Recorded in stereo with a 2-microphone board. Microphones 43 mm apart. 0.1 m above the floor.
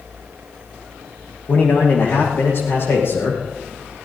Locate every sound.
1.5 s a man speaking: 50° left (ahead or behind), 6 m; by 3.4 s 65° left (ahead or behind), 6 m